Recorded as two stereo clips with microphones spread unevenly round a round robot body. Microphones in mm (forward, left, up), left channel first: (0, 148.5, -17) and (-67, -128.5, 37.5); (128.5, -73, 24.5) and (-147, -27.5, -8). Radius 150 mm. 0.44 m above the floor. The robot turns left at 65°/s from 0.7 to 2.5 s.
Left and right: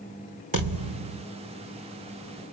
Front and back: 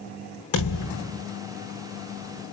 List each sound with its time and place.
0.5 s a thud: 35° right, 5 m; by 1.2 s 75° right, 5 m